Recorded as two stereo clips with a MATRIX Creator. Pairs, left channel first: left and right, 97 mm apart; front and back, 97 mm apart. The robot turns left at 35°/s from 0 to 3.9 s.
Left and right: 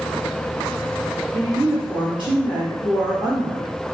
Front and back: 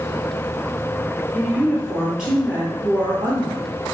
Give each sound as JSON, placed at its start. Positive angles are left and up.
{"t": 1.3, "sound": "a woman speaking", "azimuth_deg": -70, "distance_m": 1.9}